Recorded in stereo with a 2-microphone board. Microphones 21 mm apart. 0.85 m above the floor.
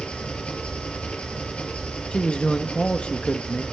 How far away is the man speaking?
About 0.9 m.